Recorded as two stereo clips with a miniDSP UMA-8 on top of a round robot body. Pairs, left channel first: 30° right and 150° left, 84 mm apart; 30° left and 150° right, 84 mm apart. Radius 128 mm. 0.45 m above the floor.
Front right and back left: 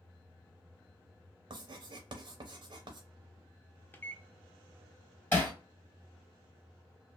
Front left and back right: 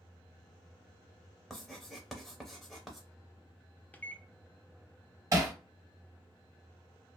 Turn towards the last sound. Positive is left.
turn(degrees=-95)